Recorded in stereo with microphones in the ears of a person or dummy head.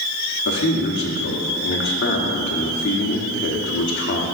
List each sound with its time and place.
0.5 s a man speaking: 65° left (ahead or behind), 1.0 m